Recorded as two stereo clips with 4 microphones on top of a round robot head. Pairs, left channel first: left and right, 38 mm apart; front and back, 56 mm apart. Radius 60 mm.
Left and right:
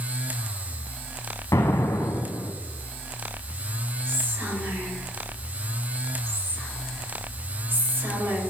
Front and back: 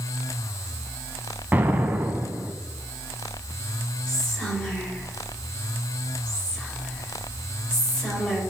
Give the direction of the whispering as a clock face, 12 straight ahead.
2 o'clock.